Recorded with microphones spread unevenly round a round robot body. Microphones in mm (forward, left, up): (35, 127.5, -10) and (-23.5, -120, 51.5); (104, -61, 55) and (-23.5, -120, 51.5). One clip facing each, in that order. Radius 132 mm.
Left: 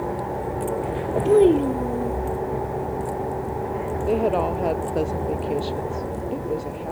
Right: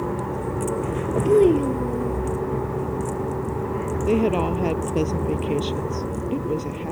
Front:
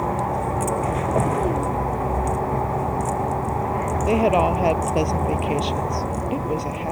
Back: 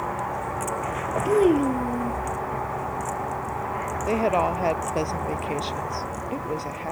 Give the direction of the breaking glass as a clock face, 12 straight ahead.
No breaking glass in this recording.